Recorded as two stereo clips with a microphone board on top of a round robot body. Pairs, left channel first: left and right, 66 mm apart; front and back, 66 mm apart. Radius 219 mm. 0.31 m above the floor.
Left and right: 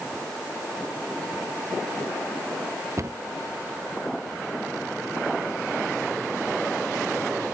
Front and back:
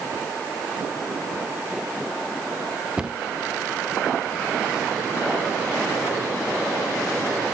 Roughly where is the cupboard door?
Right.